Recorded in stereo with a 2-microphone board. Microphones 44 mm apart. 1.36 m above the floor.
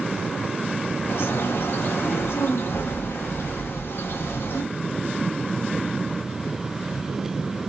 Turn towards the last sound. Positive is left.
turn(degrees=60)  # may be behind; listen again after turning